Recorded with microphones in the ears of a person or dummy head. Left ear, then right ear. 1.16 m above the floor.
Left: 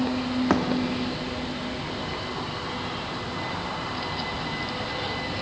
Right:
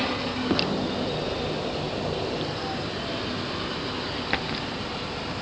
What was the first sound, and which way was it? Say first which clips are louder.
A thud: left 1 dB; 35° left (ahead or behind).